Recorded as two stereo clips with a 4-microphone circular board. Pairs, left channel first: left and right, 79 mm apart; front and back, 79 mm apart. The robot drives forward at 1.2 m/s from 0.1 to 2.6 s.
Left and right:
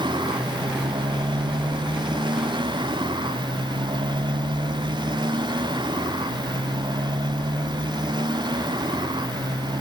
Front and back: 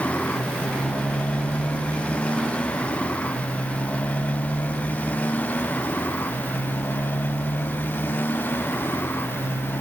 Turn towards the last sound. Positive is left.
turn(degrees=-65)